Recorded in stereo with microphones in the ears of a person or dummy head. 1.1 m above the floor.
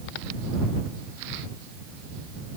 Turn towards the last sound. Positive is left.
No sound to turn to.